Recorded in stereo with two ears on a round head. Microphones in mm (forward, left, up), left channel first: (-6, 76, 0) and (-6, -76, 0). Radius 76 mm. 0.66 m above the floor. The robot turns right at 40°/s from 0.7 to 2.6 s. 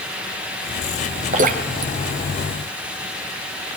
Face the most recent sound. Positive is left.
turn(degrees=-80)